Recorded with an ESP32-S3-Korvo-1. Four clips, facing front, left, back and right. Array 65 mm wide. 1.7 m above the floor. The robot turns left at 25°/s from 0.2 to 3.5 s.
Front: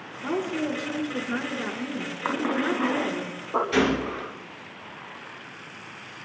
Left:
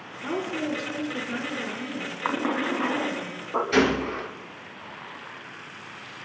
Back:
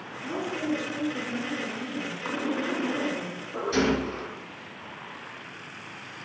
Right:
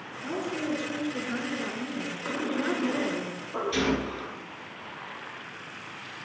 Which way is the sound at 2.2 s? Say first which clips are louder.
Left 4 dB, front 4 dB; 60° left.